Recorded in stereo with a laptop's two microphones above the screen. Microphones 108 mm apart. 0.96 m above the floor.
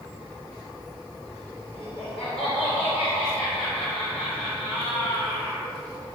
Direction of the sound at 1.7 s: 10° left (ahead or behind).